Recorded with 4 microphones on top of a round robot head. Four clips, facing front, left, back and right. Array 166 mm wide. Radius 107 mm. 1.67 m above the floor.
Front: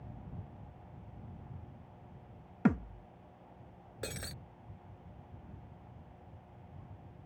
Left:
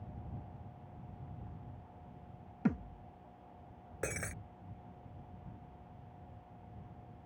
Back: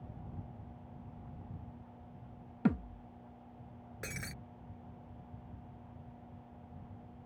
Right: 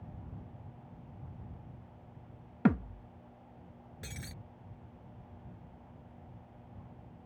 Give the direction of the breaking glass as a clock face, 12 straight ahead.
10 o'clock.